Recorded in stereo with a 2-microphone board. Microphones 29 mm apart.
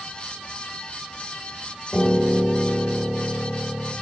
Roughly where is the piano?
Left.